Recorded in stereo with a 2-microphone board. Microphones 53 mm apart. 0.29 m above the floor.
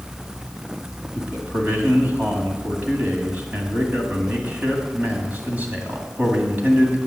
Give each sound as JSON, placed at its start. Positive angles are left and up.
{"t": 1.1, "sound": "a man speaking", "side_deg": -30, "distance_m": 2.0}